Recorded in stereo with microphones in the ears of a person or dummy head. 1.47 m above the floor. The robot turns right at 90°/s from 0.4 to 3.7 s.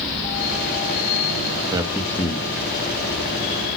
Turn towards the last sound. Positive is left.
turn(degrees=155)